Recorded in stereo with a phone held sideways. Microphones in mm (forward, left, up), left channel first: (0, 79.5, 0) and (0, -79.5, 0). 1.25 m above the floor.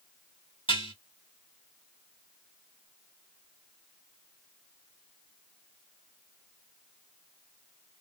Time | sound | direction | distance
0.7 | dishes clattering | 30° left (ahead or behind) | 2.5 m